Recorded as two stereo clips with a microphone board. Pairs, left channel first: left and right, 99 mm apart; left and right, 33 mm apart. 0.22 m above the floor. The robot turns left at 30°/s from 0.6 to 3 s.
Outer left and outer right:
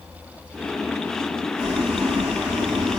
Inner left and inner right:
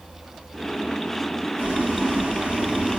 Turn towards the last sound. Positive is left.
turn(degrees=-120)